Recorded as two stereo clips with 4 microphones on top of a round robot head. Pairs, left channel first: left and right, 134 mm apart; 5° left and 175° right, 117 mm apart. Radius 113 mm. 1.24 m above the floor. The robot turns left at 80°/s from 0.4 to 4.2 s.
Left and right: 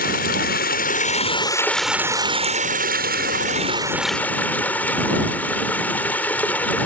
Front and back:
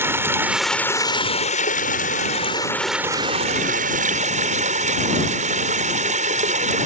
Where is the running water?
115° left; by 6.9 s 170° left.